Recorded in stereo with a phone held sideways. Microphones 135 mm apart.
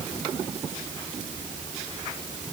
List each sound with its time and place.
Only background noise.